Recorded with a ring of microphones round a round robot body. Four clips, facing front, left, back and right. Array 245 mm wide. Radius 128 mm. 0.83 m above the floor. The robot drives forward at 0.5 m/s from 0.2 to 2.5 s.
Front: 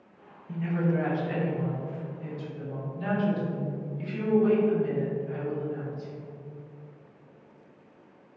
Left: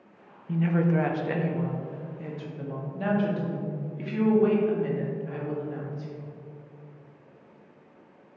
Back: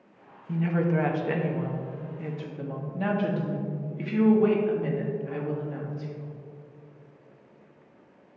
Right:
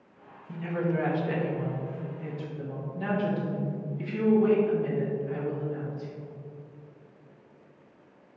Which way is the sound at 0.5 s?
115° left.